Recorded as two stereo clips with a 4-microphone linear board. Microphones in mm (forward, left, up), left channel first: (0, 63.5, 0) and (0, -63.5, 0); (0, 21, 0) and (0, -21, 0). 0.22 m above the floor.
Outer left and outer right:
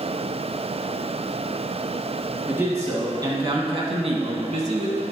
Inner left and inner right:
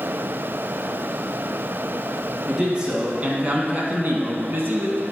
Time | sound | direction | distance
2.5 | a man speaking | 15° right (ahead or behind) | 2 m